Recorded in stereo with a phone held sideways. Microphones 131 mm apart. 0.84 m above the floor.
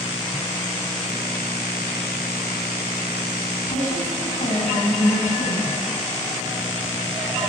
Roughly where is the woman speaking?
Left.